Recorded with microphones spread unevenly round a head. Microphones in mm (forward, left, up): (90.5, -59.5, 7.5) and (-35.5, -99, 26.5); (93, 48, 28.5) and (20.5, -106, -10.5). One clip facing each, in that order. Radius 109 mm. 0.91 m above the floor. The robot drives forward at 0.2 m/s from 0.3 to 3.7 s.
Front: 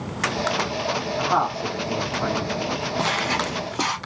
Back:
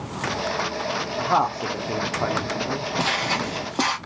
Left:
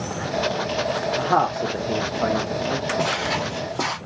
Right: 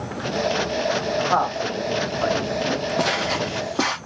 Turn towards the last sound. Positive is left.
turn(degrees=-145)